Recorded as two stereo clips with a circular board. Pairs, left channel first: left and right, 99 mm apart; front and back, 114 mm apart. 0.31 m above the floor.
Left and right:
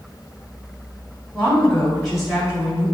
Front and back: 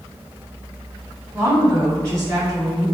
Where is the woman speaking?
150° left, 1.6 m; by 2.9 s 150° right, 1.7 m.